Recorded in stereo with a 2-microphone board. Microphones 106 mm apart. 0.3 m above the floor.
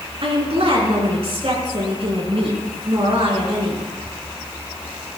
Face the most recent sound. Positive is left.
turn(degrees=-65)  # may be behind; listen again after turning